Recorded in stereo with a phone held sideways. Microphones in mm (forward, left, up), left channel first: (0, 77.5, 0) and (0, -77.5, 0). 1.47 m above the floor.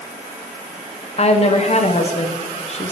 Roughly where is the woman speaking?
Left.